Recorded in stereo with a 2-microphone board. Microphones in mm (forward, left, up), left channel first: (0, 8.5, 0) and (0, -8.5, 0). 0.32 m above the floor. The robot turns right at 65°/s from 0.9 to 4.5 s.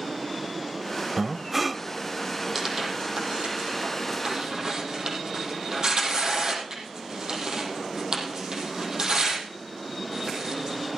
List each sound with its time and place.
1.2 s breathing: 35° right, 0.6 m; by 1.8 s 10° left, 0.6 m
2.5 s tearing paper: 10° right (ahead or behind), 5 m; by 11.0 s 45° right (ahead or behind), 5 m